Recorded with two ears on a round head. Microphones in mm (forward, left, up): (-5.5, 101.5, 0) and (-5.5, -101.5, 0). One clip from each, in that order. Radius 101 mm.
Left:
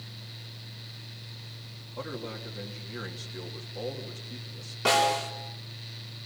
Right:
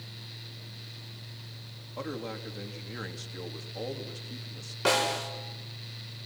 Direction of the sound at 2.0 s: 15° right (ahead or behind).